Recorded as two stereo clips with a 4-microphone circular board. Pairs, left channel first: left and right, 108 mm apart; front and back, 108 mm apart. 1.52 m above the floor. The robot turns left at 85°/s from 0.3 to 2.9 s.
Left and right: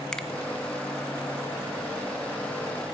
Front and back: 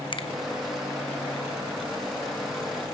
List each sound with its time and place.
0.1 s a finger snap: 10° left, 0.8 m